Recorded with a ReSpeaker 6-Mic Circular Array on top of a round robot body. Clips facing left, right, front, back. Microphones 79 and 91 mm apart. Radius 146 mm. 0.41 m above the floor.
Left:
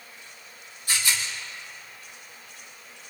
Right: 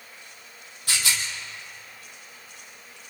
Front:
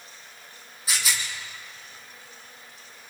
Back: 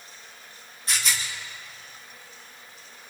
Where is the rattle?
85° right, 4 m.